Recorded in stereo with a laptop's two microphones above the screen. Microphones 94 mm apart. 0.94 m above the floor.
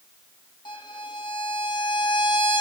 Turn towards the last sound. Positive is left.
turn(degrees=50)  # may be behind; listen again after turning